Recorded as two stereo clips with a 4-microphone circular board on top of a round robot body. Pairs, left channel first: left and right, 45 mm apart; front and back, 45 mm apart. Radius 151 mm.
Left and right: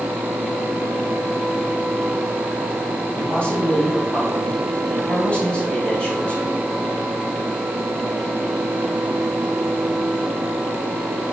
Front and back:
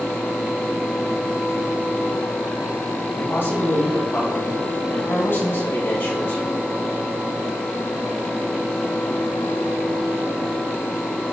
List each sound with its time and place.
3.2 s a man speaking: 30° left, 4 m